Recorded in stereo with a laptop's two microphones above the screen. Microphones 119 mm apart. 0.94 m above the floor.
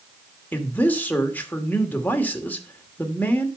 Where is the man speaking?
15° left (ahead or behind), 2.5 m.